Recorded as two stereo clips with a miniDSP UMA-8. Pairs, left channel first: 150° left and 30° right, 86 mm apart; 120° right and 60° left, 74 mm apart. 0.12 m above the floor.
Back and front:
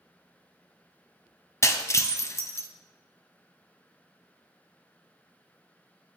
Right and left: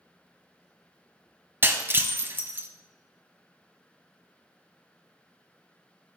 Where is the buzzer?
No buzzer in this recording.